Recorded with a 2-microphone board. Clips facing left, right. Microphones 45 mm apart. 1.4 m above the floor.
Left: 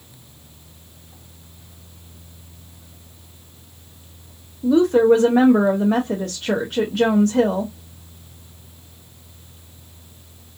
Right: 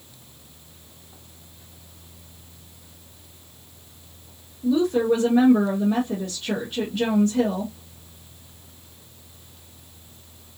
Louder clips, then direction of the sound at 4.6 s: Left 6 dB; 65° left (ahead or behind).